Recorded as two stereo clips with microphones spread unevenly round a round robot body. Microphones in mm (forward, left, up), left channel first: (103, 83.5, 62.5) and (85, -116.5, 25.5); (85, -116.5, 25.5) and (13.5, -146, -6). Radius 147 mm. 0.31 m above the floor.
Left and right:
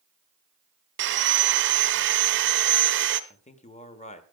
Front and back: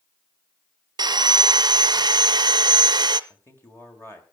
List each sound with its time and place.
1.0 s sawing: 135° right, 0.6 m
3.3 s a man speaking: 100° left, 1.5 m